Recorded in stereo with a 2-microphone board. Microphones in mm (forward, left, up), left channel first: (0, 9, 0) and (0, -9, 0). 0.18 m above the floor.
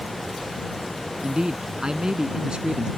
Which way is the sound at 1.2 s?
50° right (ahead or behind).